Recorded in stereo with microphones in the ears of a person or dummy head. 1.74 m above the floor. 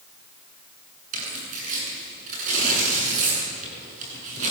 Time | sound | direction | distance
1.1 | tearing paper | 45° right (ahead or behind) | 9 m